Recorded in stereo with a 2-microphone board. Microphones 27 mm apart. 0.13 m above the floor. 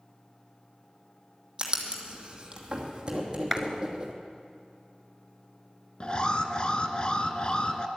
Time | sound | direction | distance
1.6 | writing | 30° right (ahead or behind) | 2.5 m
3.5 | a clap | 5° right (ahead or behind) | 1.2 m
6.0 | an alarm | 35° left (ahead or behind) | 1.0 m